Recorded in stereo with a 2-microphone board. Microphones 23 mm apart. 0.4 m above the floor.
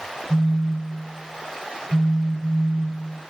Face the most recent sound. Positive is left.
turn(degrees=30)  # may be behind; listen again after turning